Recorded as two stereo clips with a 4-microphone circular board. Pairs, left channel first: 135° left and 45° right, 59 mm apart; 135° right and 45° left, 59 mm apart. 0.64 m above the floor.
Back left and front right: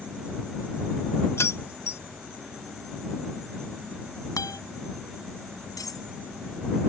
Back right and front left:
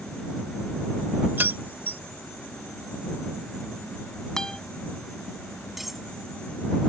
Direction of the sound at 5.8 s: 130° left.